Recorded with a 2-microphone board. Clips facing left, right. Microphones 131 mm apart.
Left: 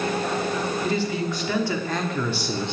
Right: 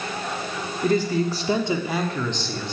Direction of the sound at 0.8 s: 45° right (ahead or behind).